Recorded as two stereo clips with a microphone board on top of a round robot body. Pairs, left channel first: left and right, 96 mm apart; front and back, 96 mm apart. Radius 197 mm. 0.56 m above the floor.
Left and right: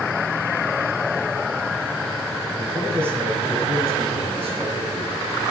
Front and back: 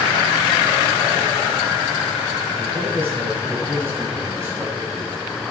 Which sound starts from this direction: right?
A man speaking, at 2.6 s.